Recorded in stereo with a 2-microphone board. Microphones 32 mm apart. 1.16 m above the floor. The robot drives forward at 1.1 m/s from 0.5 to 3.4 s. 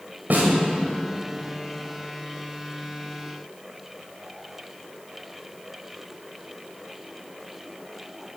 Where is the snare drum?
70° right (ahead or behind), 2 m.